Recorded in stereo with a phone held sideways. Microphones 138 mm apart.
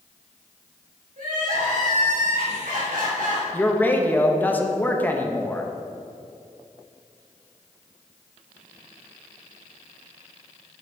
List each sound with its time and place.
1.2 s crying: 75° right (ahead or behind), 2 m
3.5 s a man speaking: 15° left (ahead or behind), 0.7 m